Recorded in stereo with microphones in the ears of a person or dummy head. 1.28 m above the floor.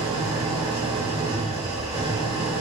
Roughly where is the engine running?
Right.